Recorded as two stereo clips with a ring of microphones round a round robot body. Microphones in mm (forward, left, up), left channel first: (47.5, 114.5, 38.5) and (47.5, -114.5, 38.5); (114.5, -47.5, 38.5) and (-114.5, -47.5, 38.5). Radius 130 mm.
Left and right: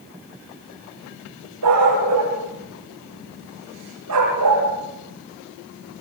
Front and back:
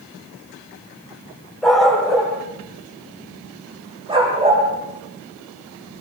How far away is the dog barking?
About 8.5 m.